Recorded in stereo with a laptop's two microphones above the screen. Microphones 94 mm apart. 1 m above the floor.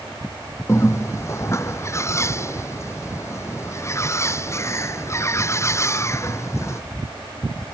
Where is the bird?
30° left (ahead or behind).